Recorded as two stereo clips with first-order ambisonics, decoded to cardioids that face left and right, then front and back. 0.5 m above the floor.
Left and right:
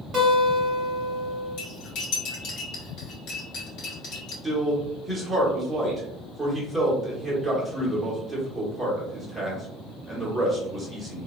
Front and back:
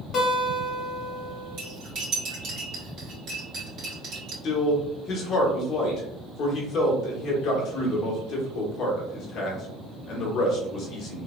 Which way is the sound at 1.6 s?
130° left.